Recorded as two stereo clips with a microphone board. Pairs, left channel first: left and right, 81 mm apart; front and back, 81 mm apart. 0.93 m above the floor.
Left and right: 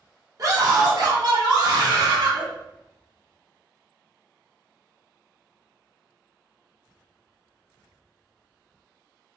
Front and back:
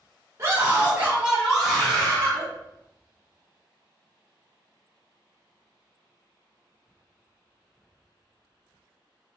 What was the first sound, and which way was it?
A scream, 130° right.